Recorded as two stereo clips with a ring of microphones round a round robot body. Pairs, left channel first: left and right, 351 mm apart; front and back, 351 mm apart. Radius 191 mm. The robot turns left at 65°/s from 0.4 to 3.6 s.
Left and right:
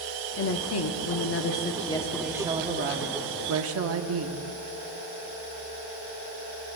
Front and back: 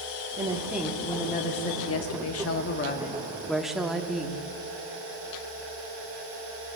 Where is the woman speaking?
115° left, 0.9 m; by 4.5 s 90° right, 0.9 m.